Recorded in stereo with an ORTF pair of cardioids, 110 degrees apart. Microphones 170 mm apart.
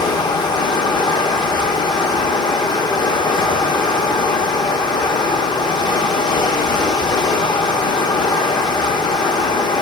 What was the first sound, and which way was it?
Running water, 25° left.